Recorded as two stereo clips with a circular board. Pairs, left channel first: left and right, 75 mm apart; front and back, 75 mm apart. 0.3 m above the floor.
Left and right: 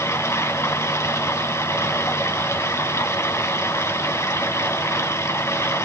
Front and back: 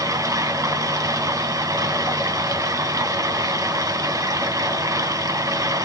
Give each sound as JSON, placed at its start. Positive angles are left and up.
{"t": 0.0, "sound": "running water", "azimuth_deg": 140, "distance_m": 2.5}